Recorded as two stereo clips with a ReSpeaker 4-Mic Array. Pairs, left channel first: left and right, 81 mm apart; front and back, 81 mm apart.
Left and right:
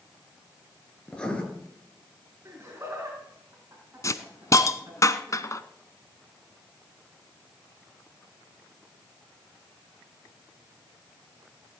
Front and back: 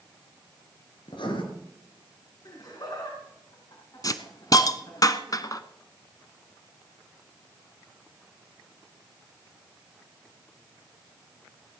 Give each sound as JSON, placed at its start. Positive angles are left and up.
{"t": 1.1, "sound": "writing", "azimuth_deg": 10, "distance_m": 3.0}
{"t": 2.5, "sound": "laughter", "azimuth_deg": -30, "distance_m": 5.0}
{"t": 4.0, "sound": "a hiss", "azimuth_deg": 40, "distance_m": 1.0}